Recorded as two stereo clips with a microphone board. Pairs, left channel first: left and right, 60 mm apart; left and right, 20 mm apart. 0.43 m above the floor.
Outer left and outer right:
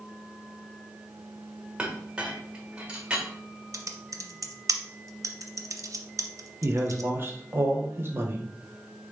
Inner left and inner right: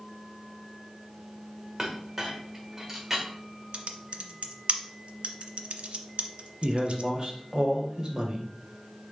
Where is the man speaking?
40° right (ahead or behind), 0.9 m.